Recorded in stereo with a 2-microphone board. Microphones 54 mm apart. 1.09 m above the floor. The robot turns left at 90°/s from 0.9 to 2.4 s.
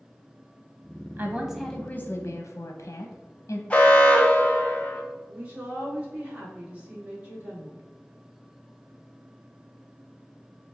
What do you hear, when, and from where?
1.2 s a woman speaking: 135° right, 0.5 m; by 3.6 s 115° left, 0.5 m
3.7 s an alarm: 25° left (ahead or behind), 0.6 m
5.3 s a woman speaking: 25° right (ahead or behind), 1.6 m